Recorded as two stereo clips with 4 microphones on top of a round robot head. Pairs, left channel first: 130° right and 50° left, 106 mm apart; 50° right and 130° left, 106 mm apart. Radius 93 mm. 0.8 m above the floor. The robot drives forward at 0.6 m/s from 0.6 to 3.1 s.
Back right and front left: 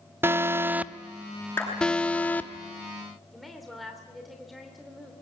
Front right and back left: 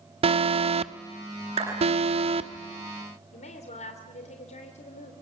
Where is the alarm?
120° left, 0.9 m; by 2.5 s 155° left, 1.7 m.